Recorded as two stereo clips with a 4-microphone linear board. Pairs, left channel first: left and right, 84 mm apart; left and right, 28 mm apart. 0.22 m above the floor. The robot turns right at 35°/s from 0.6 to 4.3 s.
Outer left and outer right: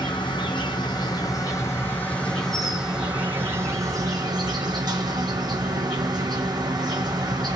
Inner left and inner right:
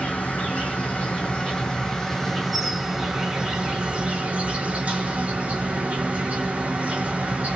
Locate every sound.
0.0 s an insect: 110° left, 0.9 m; by 7.6 s 125° right, 0.9 m